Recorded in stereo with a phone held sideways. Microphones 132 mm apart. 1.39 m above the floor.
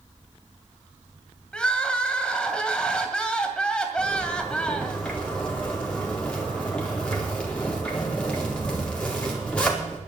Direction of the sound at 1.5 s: 5° left (ahead or behind).